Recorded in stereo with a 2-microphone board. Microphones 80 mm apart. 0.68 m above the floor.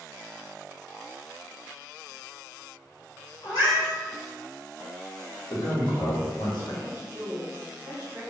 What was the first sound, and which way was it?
A cat meowing, 75° left (ahead or behind).